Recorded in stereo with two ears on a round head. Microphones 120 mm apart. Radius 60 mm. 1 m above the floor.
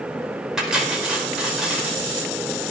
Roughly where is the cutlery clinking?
Centre.